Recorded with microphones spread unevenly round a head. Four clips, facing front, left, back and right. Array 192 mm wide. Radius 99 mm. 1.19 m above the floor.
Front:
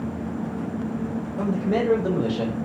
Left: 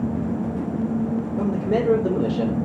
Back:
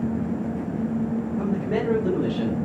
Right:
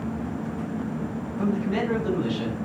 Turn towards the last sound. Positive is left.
turn(degrees=90)